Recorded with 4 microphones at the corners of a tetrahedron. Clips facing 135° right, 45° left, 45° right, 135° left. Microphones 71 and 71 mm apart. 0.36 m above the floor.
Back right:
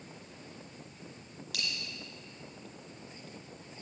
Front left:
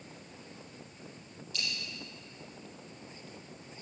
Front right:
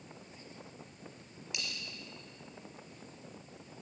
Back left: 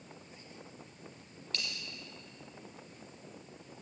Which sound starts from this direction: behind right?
A dropped coin, at 1.5 s.